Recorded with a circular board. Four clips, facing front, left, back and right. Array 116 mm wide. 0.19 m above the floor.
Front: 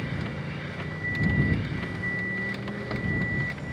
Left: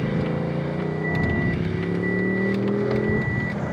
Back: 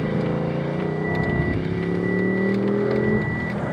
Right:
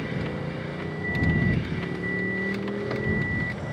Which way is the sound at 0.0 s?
160° left.